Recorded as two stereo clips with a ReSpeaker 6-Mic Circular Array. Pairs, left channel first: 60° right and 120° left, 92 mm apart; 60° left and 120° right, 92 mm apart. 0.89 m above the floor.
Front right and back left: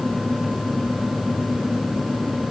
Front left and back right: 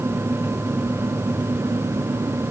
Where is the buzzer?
No buzzer in this recording.